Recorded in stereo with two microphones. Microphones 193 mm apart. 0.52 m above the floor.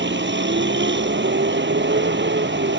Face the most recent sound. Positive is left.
turn(degrees=-70)  # may be behind; listen again after turning